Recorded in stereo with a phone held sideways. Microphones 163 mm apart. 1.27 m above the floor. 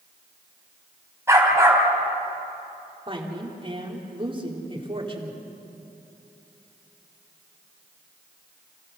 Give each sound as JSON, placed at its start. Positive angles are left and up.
{"t": 1.3, "sound": "a dog barking", "side_deg": -15, "distance_m": 3.5}
{"t": 3.1, "sound": "a woman speaking", "side_deg": -35, "distance_m": 2.5}